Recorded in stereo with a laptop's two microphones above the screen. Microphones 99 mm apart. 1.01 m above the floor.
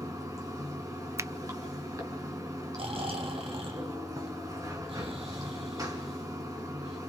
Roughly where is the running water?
Right.